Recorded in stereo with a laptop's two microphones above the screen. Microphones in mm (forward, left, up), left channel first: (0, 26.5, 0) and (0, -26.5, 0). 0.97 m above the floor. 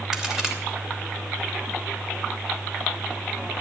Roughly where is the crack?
Centre.